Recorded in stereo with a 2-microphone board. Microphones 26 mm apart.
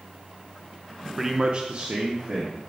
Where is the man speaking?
10° right (ahead or behind), 0.7 m; by 2.6 s 45° right (ahead or behind), 1.7 m.